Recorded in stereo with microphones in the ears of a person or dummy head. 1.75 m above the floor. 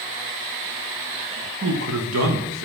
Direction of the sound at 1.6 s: 60° right (ahead or behind).